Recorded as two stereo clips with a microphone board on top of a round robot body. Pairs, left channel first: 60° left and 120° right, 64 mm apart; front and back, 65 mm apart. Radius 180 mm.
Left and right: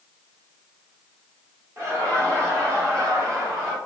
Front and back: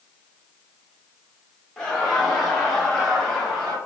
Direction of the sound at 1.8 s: 80° right.